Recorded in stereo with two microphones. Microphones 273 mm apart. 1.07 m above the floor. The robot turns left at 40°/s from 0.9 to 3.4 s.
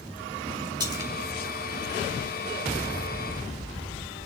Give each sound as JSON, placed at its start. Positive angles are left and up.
{"t": 0.8, "sound": "a splash", "side_deg": -15, "distance_m": 2.0}